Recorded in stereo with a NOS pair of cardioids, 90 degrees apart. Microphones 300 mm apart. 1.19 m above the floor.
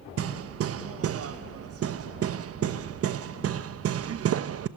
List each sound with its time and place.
0.2 s hammering: 50° right, 1.0 m